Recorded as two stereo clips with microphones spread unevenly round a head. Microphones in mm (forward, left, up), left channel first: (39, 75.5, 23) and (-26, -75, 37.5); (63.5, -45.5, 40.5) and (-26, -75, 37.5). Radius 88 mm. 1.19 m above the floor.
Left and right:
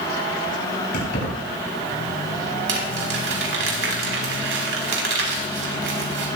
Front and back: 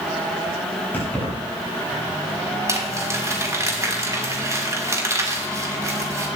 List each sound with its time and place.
0.9 s keys jangling: 95° left, 6.5 m
2.7 s crumpling: 105° right, 4 m